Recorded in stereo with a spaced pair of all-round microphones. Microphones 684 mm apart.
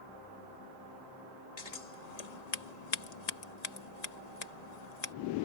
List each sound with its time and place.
1.6 s scissors: 70° left (ahead or behind)